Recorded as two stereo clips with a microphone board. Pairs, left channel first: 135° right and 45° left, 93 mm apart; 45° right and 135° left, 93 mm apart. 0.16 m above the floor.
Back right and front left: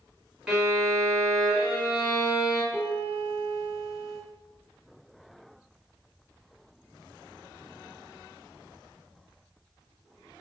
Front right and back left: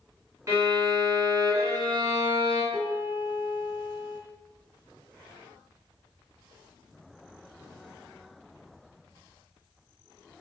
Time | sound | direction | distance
0.5 | a violin | 125° left | 1.6 m
2.7 | a piano | 130° left | 1.6 m